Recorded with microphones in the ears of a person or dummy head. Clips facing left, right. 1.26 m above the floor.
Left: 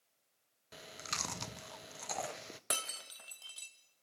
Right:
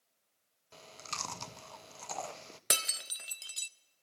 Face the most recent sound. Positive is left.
turn(degrees=-35)  # may be behind; listen again after turning